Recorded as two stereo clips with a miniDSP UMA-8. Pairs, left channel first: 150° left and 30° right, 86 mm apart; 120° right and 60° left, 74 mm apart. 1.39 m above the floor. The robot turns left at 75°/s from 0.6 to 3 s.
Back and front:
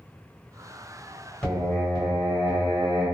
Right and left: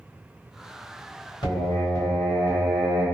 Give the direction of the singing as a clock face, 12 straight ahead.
4 o'clock.